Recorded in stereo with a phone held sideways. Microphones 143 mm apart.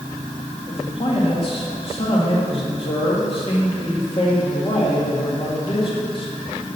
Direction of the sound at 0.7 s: 45° left (ahead or behind).